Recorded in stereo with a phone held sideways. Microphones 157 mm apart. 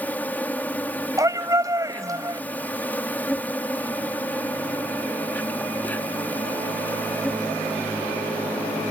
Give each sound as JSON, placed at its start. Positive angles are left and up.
{"t": 0.0, "sound": "an insect", "side_deg": 10}
{"t": 1.2, "sound": "a shout", "side_deg": -20}